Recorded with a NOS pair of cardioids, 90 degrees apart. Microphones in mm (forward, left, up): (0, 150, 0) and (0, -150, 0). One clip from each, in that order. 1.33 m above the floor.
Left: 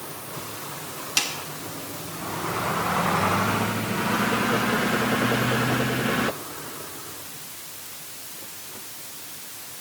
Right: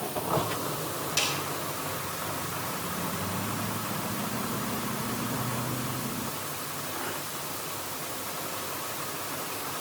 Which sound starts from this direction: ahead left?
A snare drum, at 1.2 s.